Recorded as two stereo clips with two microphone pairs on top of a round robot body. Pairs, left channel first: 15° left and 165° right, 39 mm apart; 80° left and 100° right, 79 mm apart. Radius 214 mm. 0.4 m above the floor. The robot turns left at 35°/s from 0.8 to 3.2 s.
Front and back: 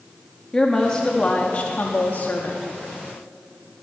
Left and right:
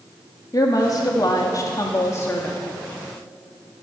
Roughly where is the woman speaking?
Left.